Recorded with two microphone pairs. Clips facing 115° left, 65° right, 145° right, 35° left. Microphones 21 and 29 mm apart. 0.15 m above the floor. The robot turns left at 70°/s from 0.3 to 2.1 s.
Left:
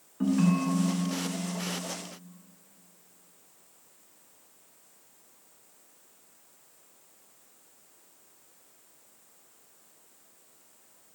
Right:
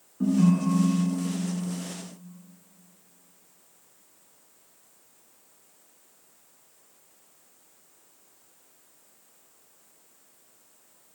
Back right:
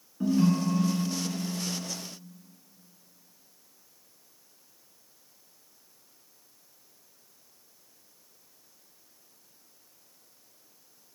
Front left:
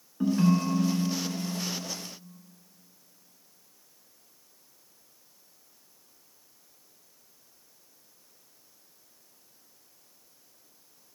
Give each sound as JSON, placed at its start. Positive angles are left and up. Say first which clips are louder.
{"t": 0.2, "sound": "a ringtone", "louder": "right 3 dB, even", "azimuth_deg": 85, "distance_m": 0.9}